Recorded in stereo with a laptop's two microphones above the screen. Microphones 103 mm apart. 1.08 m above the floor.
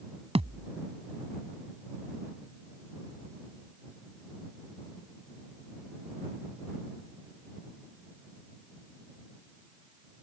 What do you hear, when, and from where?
0.3 s a thud: 80° right